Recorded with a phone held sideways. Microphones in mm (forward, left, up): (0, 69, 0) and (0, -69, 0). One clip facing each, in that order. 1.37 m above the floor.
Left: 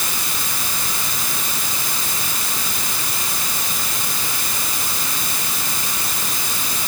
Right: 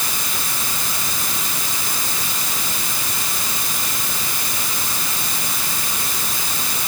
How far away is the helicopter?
I don't hear a helicopter.